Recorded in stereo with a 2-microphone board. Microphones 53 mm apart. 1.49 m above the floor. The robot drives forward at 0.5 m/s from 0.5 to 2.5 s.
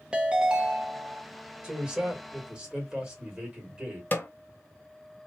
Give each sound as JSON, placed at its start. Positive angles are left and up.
{"t": 0.1, "sound": "a ringtone", "side_deg": -20, "distance_m": 0.9}
{"t": 1.6, "sound": "a man speaking", "side_deg": -20, "distance_m": 1.6}
{"t": 4.1, "sound": "a snare drum", "side_deg": 35, "distance_m": 0.8}